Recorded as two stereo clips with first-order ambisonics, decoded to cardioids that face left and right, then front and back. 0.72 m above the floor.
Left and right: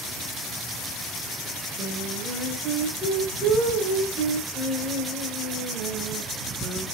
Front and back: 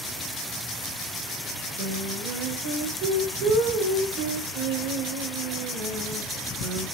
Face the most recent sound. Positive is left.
turn(degrees=-160)